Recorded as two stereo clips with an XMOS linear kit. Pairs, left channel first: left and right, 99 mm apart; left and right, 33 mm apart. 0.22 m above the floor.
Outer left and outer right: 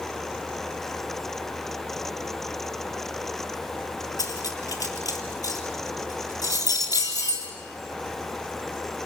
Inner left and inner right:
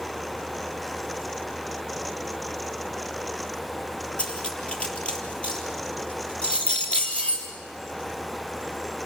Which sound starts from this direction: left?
Cutlery clinking, at 4.2 s.